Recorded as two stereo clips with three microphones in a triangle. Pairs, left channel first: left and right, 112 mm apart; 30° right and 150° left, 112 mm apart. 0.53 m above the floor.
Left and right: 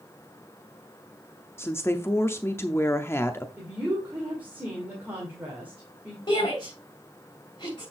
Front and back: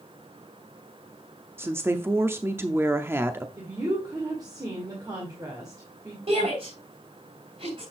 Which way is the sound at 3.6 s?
165° right.